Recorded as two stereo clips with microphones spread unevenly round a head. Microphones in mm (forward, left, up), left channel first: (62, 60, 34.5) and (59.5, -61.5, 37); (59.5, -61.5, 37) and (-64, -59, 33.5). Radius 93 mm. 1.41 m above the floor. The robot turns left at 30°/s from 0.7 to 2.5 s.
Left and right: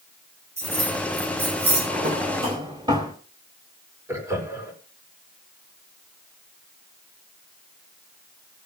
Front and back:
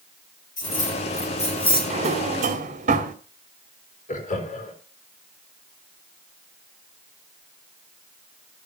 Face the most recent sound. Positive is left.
turn(degrees=-25)